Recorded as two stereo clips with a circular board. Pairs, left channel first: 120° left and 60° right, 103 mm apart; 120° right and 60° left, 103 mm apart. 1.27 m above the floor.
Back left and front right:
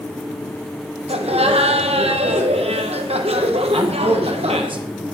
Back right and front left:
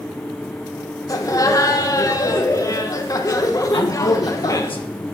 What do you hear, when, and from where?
1.1 s laughter: 65° right, 1.2 m
3.7 s a man speaking: 95° right, 1.1 m